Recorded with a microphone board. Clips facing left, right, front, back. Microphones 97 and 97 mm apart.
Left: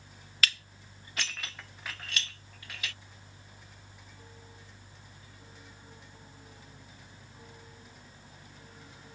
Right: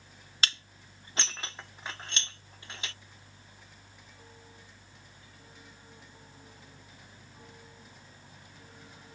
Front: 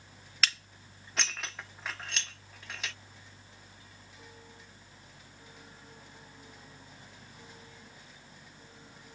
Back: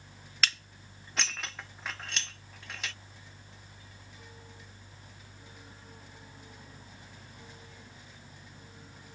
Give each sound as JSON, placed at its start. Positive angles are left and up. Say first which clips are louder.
{"t": 0.4, "sound": "dishes clattering", "louder": "left 1 dB, even", "azimuth_deg": -90, "distance_m": 0.5}